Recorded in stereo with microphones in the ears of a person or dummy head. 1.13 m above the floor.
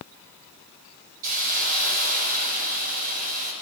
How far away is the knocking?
No knocking in this recording.